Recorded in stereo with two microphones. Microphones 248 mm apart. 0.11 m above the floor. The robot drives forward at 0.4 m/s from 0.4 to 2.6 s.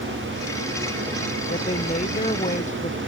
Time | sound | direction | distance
1.5 | a woman speaking | 30° left (ahead or behind) | ?